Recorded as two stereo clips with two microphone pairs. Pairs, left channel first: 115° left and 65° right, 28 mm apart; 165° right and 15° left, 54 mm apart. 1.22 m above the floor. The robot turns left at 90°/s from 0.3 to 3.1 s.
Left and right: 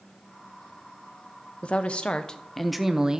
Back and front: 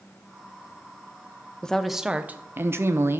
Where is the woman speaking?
130° left, 0.6 m; by 3.2 s 5° right, 0.6 m.